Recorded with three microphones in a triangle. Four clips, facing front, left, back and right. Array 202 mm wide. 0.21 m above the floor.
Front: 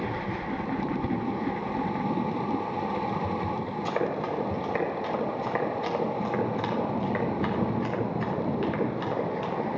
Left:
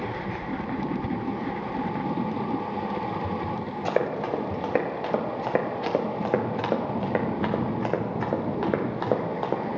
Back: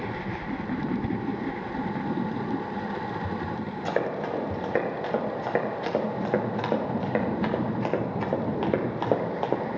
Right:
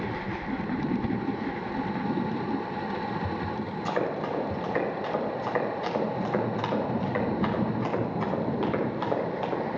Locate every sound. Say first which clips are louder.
3.9 s running footsteps: left 4 dB, back 2 dB; 110° left, 4.5 m; by 9.6 s 150° left, 2.5 m